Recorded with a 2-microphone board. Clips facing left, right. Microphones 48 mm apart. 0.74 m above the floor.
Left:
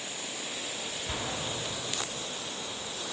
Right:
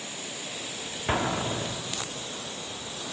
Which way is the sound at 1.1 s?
50° right (ahead or behind).